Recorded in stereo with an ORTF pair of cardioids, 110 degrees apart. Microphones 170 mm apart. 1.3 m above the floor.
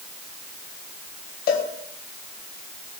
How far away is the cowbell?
About 2.5 m.